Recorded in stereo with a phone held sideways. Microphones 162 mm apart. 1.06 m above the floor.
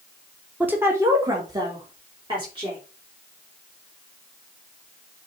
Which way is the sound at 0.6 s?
10° right (ahead or behind).